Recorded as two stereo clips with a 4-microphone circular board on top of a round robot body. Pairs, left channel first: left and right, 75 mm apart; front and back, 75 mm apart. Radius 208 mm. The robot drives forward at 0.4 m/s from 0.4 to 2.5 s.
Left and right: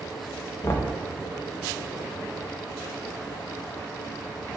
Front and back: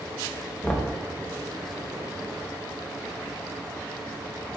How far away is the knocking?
About 0.9 m.